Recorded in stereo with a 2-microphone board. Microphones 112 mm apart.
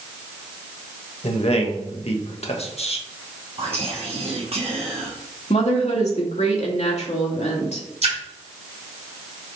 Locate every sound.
1.2 s a man speaking: 65° left (ahead or behind), 1.4 m
3.6 s whispering: 65° right (ahead or behind), 0.9 m
5.5 s a woman speaking: 80° left, 2 m
8.0 s a splash: 80° right, 3.5 m